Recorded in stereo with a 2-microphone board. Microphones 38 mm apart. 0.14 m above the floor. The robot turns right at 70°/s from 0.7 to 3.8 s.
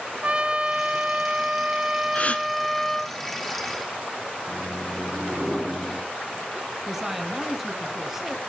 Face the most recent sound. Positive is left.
turn(degrees=-5)  # may be behind; listen again after turning